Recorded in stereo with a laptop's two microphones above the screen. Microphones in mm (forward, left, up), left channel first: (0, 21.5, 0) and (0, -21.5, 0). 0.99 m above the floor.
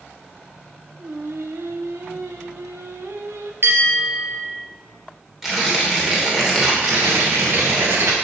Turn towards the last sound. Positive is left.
turn(degrees=-85)